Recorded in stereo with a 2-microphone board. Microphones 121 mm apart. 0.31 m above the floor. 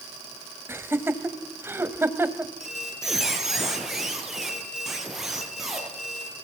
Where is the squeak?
5° right (ahead or behind), 6.5 m.